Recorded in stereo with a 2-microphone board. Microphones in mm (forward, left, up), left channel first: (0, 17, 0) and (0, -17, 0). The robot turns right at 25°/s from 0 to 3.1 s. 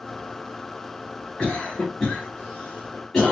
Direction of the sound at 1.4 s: 30° left (ahead or behind).